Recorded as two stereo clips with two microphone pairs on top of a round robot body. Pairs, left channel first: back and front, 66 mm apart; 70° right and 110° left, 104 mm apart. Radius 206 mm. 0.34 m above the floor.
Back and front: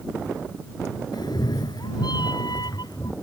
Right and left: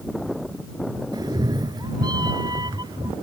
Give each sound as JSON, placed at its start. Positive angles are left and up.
{"t": 1.1, "sound": "a cat meowing", "azimuth_deg": 165}